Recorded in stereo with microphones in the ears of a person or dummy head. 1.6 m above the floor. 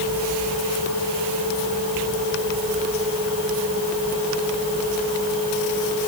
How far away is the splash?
No splash in this recording.